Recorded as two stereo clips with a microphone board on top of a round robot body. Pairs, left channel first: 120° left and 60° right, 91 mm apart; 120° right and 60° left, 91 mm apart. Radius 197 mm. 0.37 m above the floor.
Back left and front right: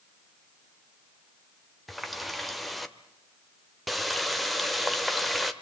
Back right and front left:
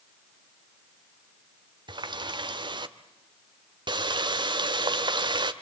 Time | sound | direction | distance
1.9 | a running tap | 30° left | 1.4 m